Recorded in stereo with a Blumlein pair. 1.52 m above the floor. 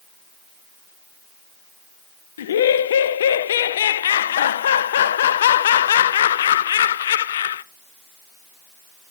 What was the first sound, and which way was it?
Laughter, 60° left.